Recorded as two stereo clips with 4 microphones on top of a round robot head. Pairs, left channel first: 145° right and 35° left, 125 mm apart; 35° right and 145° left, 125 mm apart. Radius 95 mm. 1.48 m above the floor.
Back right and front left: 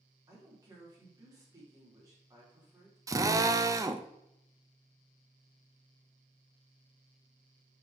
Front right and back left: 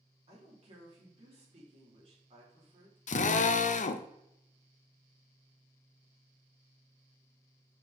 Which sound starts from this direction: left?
A woman speaking, at 0.3 s.